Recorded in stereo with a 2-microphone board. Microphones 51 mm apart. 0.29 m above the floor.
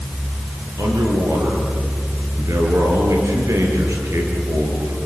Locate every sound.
0.8 s a man speaking: 75° right (ahead or behind), 6.5 m